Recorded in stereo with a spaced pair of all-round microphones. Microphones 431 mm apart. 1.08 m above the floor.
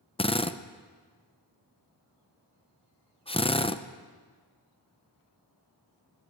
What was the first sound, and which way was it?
A drill, 15° left (ahead or behind).